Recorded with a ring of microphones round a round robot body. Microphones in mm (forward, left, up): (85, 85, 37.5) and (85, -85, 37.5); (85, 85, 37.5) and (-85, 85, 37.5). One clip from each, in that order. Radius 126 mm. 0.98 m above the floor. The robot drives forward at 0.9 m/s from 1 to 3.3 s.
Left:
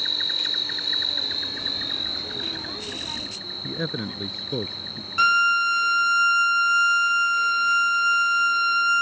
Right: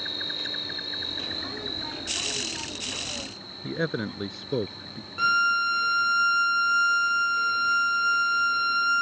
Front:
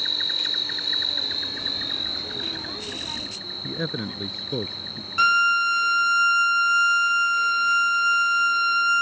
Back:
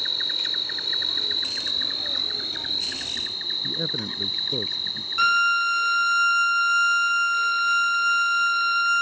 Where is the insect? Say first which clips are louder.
Left 7 dB, front 1 dB; 95° left; by 9.0 s 165° left.